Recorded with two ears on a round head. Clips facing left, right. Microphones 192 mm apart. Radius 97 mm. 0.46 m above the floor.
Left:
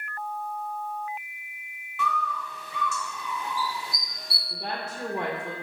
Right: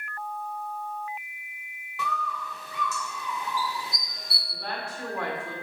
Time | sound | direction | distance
2.0 | a bird | 30° right (ahead or behind) | 1.4 m
4.5 | a woman speaking | 20° left (ahead or behind) | 0.9 m